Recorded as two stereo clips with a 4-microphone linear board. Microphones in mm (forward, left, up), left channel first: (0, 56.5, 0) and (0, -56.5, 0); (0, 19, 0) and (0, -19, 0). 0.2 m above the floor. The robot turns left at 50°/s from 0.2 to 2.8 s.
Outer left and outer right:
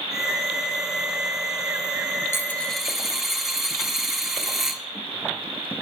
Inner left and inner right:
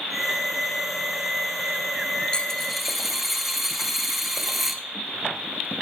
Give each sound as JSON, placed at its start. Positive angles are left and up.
{"t": 2.3, "sound": "a dropped coin", "side_deg": 20, "distance_m": 0.9}